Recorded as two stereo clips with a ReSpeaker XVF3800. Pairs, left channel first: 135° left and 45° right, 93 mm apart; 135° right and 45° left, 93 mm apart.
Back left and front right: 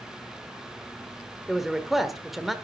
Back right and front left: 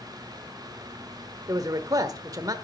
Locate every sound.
1.5 s a man speaking: 40° left, 1.2 m